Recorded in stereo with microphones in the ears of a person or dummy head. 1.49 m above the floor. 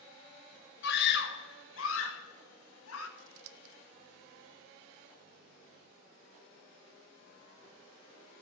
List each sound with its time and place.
0.8 s a scream: 55° left (ahead or behind), 1.1 m; by 3.1 s 85° left, 2 m
3.2 s scissors: 75° right (ahead or behind), 0.7 m